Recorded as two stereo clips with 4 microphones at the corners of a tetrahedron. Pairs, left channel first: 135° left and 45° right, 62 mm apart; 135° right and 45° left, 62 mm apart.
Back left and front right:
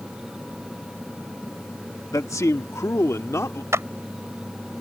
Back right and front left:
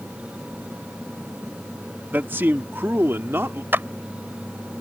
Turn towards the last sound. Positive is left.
turn(degrees=-5)